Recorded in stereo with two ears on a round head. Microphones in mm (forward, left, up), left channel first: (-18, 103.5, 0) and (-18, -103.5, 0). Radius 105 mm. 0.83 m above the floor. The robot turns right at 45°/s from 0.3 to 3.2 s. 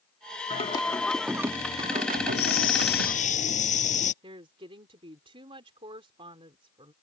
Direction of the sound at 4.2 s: 20° right (ahead or behind).